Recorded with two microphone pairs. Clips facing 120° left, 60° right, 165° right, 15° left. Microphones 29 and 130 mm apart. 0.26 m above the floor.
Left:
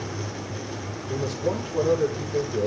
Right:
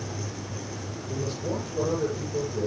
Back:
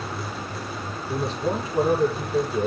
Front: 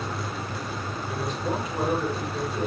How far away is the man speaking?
About 9 m.